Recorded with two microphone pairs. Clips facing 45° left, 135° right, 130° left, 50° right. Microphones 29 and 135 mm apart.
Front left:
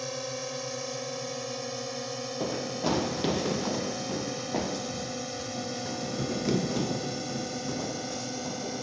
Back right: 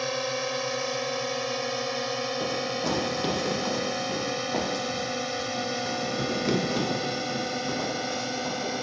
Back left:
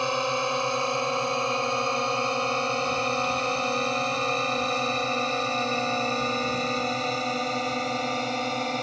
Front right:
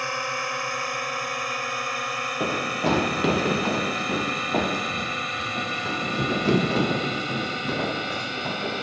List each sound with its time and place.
0.0 s a drone: 170° right; by 8.8 s 175° left
2.4 s running footsteps: 30° right; by 8.8 s 75° right